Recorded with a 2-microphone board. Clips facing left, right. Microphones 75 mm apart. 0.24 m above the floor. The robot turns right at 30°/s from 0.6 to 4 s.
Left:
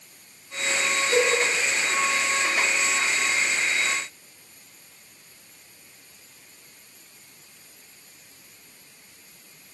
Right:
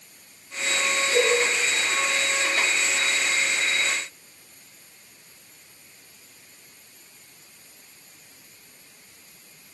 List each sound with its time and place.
1.1 s a cowbell: 40° left (ahead or behind), 3 m; by 1.3 s 35° left (ahead or behind), 3 m